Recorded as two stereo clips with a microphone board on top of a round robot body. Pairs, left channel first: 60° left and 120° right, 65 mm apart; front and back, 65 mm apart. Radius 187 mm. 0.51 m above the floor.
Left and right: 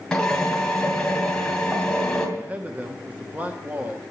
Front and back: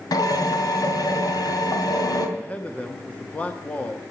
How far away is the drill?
About 3 m.